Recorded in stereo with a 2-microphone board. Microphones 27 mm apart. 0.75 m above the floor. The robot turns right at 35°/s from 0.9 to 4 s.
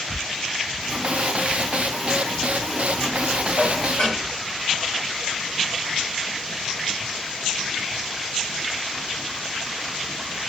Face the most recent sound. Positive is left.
turn(degrees=70)  # may be behind; listen again after turning